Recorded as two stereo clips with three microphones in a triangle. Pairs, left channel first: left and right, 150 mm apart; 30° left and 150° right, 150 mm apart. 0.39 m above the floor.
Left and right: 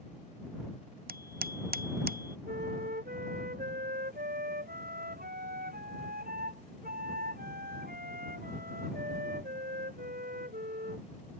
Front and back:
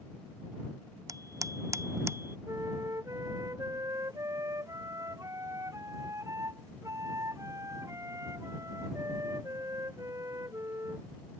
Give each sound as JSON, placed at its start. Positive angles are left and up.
{"t": 1.1, "sound": "a bicycle bell", "azimuth_deg": -80}
{"t": 2.5, "sound": "a flute", "azimuth_deg": -80}